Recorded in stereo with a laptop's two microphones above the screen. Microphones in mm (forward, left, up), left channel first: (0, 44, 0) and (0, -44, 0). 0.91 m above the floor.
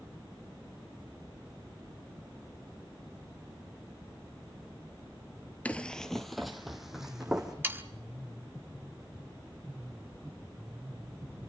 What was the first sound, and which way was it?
Running footsteps, 15° left (ahead or behind).